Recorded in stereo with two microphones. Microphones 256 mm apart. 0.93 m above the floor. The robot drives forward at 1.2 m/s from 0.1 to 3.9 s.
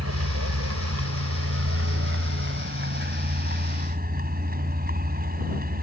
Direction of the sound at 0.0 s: 80° right.